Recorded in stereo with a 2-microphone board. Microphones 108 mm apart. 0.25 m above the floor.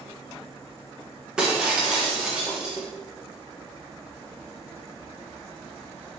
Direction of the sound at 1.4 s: 10° right (ahead or behind).